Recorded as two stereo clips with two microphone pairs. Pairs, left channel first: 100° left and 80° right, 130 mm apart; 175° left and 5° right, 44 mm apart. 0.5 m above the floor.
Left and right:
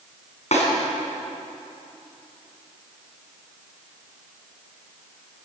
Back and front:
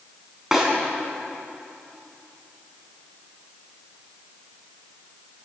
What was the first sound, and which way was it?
A snare drum, 75° left.